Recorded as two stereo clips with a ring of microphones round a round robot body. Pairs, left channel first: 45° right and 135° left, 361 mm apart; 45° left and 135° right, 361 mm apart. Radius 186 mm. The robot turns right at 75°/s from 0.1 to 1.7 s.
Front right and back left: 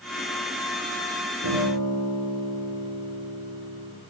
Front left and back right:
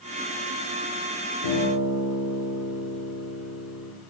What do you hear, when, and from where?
1.4 s a guitar: 85° left, 7 m; by 3.9 s 105° left, 7 m